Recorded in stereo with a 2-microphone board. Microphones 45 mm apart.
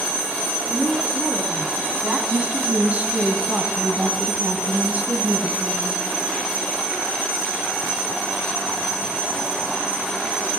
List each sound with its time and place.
0.7 s a woman speaking: 35° left (ahead or behind), 2.5 m; by 2.2 s 15° right (ahead or behind), 1.2 m
2.3 s a woman speaking: 30° right (ahead or behind), 1.2 m